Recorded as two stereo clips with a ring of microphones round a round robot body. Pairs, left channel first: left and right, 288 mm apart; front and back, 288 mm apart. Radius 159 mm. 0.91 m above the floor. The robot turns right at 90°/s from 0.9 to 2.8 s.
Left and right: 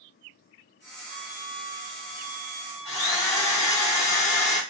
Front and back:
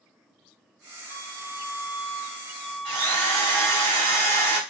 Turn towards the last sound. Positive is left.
turn(degrees=170)